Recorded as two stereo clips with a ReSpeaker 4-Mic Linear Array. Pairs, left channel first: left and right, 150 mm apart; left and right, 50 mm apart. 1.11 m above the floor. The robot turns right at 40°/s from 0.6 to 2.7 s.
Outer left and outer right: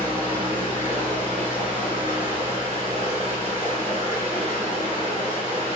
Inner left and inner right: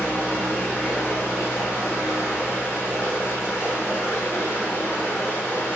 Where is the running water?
40° left, 1.6 m; by 5.8 s 120° left, 1.6 m.